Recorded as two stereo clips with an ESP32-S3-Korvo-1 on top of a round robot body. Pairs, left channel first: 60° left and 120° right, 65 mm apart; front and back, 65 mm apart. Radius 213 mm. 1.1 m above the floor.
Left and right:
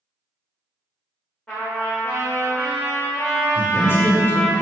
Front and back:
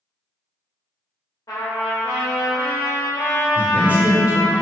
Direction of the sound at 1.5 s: 10° right.